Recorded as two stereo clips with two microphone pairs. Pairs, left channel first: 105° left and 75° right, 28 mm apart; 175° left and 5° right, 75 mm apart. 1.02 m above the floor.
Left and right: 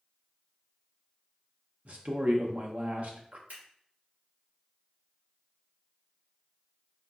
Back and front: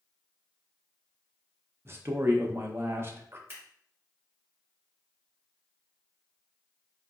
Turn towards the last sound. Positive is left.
turn(degrees=-65)